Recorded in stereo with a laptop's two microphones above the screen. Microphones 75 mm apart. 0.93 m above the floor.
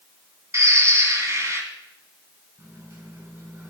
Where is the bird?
45° right (ahead or behind), 1.8 m.